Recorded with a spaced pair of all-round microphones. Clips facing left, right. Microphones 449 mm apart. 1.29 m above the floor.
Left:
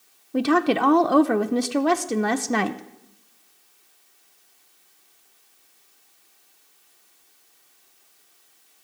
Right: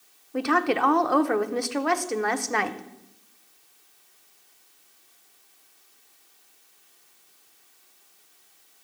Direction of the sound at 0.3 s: 55° left (ahead or behind).